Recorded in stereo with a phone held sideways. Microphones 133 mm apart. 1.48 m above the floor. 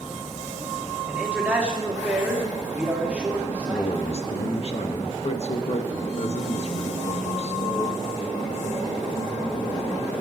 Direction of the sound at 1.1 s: 10° right (ahead or behind).